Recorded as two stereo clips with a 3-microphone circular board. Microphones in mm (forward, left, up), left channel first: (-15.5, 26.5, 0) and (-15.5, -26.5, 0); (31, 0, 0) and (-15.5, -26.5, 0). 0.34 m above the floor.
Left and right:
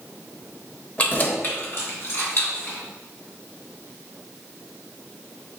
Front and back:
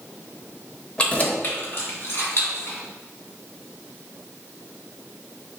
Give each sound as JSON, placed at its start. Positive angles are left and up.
{"t": 1.0, "sound": "keys jangling", "azimuth_deg": 75, "distance_m": 0.7}